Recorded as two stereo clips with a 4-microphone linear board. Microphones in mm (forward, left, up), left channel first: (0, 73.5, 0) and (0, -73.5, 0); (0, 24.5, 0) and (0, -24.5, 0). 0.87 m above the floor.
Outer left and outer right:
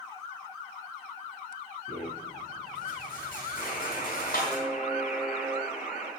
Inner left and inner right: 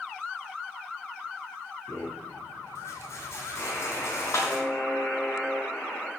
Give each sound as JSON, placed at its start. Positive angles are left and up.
{"t": 1.9, "sound": "a rattle", "side_deg": 80, "distance_m": 5.0}
{"t": 3.6, "sound": "a buzzer", "side_deg": 60, "distance_m": 5.0}